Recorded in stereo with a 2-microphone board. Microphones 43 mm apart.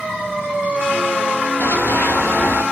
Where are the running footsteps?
75° left (ahead or behind), 4.5 m.